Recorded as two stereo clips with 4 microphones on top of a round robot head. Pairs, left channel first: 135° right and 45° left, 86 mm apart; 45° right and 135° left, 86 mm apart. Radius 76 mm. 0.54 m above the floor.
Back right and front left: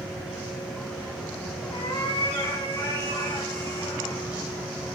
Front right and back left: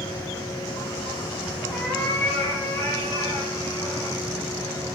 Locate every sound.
1.7 s a cat meowing: 120° right, 1.8 m; by 4.2 s 85° right, 4.5 m